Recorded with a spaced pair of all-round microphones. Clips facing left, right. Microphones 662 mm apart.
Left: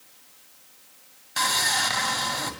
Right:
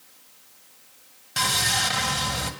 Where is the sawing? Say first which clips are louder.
Right 1 dB; 55° right (ahead or behind), 2.5 m.